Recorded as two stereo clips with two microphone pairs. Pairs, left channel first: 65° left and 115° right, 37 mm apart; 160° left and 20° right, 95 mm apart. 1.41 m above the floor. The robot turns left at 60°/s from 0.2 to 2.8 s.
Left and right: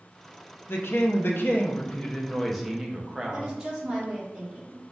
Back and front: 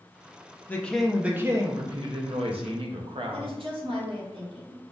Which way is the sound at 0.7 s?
90° left.